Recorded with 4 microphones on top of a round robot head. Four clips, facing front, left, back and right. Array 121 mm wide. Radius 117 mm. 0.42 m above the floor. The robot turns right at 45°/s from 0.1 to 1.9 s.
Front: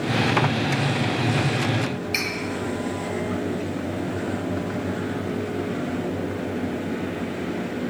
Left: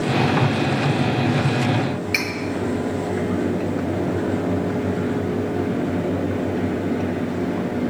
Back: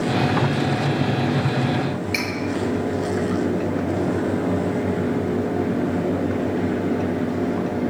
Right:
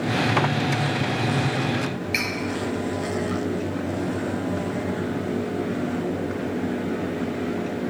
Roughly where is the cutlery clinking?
Left.